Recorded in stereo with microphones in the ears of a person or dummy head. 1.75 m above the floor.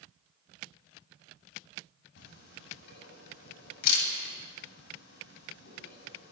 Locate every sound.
2.2 s a camera shutter: 70° left (ahead or behind), 7.5 m